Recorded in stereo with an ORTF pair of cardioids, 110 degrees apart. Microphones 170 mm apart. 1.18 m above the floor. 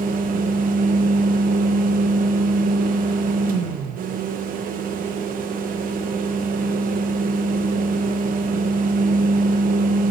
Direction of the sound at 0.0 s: 60° right.